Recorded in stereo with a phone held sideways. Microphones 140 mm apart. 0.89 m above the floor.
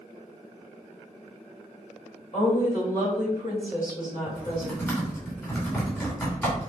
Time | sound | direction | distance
2.3 | a woman speaking | 70° left (ahead or behind) | 2.5 m
4.3 | typing on a keyboard | 20° left (ahead or behind) | 2.5 m